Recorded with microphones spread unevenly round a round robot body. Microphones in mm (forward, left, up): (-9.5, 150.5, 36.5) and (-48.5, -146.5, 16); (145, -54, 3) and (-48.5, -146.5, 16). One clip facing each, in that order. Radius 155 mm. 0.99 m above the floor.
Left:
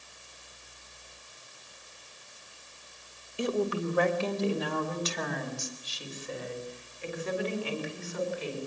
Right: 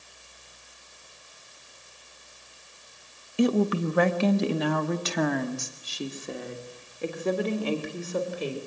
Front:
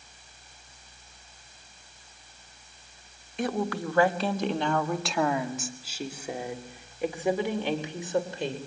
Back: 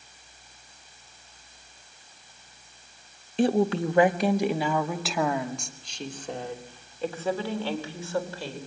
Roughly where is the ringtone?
No ringtone in this recording.